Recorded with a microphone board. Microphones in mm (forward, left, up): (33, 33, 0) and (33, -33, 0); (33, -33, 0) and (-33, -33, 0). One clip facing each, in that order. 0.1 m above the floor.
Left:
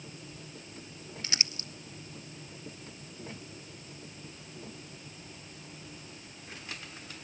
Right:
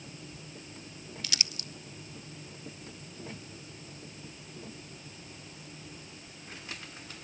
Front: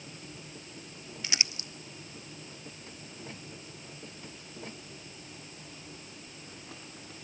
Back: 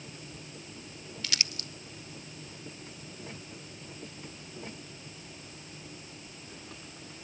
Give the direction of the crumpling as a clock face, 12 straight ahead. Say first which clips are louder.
Left 2 dB, front 1 dB; 10 o'clock.